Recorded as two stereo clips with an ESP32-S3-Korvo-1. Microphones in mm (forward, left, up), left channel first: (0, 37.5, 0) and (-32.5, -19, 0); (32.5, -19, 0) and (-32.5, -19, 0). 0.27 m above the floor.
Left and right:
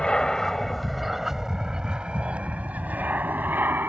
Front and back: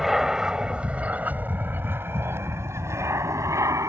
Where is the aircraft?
100° left; by 3.9 s 170° right.